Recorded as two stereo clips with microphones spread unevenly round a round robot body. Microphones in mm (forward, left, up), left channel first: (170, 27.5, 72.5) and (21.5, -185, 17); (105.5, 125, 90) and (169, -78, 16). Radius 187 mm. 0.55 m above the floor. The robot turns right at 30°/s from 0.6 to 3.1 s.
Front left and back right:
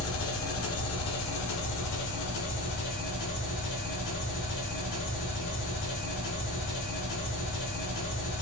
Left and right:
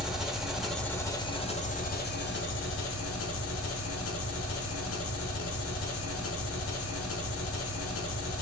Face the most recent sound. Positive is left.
turn(degrees=90)